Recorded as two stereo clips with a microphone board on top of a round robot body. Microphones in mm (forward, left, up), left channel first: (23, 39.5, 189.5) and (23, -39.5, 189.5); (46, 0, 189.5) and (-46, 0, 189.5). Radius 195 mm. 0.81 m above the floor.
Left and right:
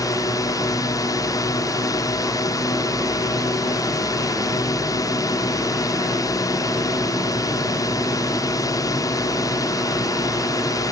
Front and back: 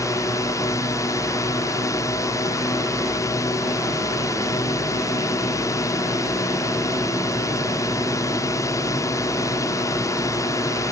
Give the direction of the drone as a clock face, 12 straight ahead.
10 o'clock.